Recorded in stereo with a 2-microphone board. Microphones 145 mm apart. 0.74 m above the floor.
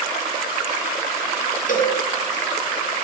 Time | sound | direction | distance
1.7 | a cowbell | 65° left (ahead or behind) | 2 m